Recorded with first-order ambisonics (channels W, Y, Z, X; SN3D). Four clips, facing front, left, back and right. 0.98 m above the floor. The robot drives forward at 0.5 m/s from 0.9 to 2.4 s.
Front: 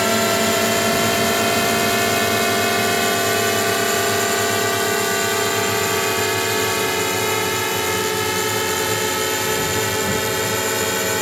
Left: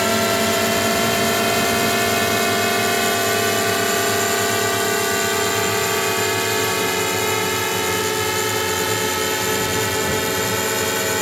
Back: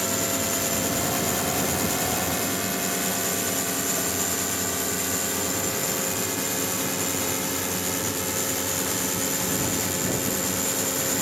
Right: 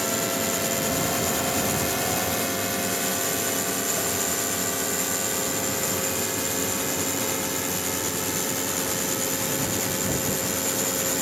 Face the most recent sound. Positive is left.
turn(degrees=50)